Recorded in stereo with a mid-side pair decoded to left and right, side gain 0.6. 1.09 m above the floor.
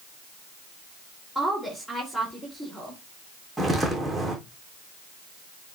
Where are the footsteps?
15° right, 3.5 m.